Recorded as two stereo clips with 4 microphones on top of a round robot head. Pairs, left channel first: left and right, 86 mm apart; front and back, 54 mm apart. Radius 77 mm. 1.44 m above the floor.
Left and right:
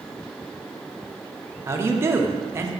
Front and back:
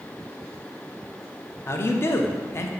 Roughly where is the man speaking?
Ahead right.